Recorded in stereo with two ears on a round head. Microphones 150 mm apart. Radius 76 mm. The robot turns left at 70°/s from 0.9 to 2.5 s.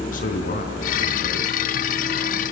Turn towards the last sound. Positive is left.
turn(degrees=10)